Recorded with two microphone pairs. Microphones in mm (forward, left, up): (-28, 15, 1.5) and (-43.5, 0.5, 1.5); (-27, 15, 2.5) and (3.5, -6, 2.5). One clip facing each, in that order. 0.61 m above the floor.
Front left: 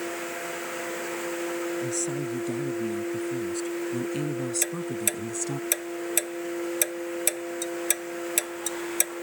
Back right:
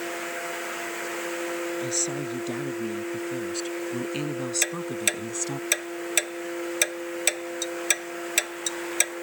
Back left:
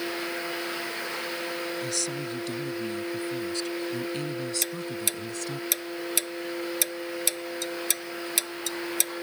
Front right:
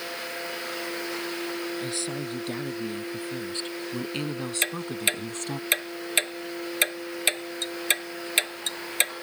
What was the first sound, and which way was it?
A woman speaking, 100° right.